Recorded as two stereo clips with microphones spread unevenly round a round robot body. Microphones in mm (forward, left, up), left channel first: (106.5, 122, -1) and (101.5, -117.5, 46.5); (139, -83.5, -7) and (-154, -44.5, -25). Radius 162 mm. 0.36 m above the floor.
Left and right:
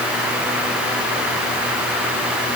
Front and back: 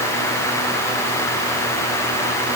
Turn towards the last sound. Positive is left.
No sound to turn to.